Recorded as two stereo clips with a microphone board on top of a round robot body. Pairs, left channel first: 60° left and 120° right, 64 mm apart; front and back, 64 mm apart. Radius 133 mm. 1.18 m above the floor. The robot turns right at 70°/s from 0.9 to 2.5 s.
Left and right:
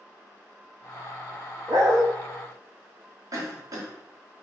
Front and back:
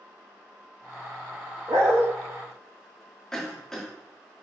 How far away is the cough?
About 2 m.